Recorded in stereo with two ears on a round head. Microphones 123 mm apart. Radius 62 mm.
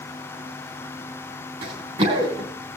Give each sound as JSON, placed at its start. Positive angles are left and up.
{"t": 1.6, "sound": "running footsteps", "side_deg": -45, "distance_m": 3.5}